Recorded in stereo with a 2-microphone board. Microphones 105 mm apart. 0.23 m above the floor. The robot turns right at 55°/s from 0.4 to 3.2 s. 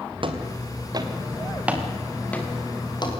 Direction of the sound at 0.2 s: 50° right (ahead or behind).